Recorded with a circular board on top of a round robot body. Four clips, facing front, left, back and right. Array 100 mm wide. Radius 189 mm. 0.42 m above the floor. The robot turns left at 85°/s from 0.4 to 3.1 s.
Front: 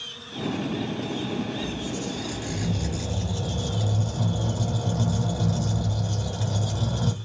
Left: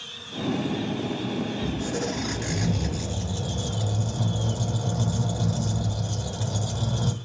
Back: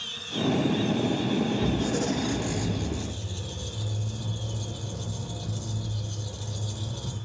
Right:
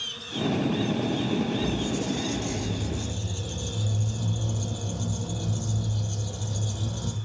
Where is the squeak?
160° left, 2 m; by 7.2 s 35° left, 2 m.